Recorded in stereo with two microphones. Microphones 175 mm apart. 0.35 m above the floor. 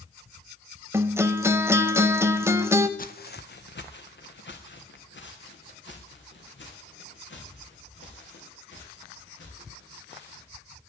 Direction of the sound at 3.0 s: 50° left (ahead or behind).